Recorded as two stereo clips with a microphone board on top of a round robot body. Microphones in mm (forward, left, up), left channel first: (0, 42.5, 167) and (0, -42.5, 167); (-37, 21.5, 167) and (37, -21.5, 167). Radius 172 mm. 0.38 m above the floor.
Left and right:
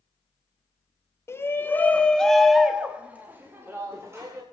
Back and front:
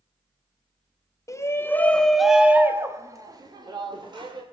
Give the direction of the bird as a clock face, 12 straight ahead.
No bird in this recording.